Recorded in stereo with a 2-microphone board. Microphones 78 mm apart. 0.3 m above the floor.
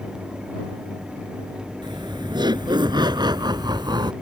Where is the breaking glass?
No breaking glass in this recording.